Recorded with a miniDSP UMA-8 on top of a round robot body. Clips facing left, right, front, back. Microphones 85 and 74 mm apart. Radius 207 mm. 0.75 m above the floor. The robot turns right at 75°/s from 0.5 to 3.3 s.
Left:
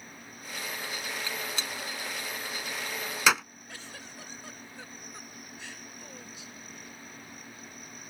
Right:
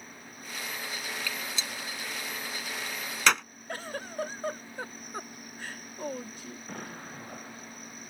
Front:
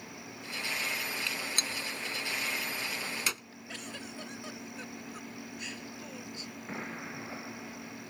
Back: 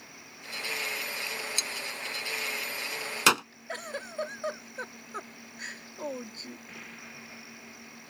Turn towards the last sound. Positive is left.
turn(degrees=-55)